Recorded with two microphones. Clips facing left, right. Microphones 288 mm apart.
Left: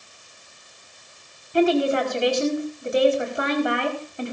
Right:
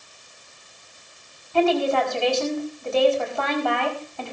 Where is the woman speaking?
20° left (ahead or behind), 4 m.